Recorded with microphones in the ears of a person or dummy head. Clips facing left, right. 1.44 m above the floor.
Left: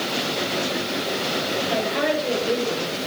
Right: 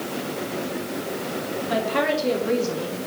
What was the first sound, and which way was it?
A woman speaking, 65° right (ahead or behind).